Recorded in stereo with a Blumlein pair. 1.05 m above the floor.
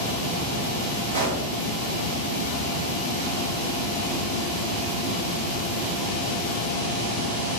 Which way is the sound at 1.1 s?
70° right.